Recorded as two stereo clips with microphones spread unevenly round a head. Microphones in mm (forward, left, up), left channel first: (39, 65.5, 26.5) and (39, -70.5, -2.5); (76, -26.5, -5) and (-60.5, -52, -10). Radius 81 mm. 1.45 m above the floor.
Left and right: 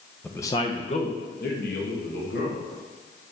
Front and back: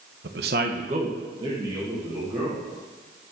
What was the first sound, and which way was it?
A man speaking, 175° left.